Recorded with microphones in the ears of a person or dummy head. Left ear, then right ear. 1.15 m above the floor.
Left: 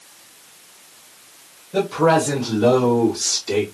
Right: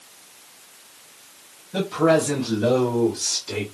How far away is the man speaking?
About 1.4 m.